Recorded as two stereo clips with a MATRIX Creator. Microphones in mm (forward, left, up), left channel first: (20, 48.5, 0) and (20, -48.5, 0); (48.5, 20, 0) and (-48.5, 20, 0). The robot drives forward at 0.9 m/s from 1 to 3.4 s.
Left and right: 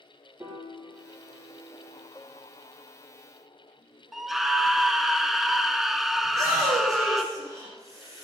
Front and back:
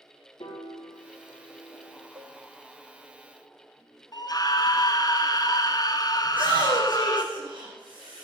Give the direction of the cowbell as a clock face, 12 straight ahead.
6 o'clock.